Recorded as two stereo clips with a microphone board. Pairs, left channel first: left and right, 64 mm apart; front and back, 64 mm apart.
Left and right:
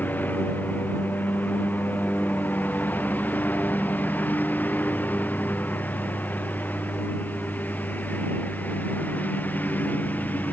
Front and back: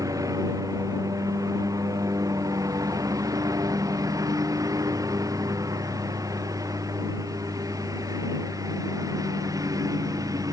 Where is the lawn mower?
150° left.